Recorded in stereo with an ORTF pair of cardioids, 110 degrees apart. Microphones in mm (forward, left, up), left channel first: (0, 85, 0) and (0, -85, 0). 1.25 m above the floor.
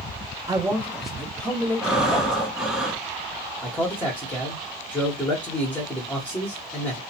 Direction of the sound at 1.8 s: 5° right.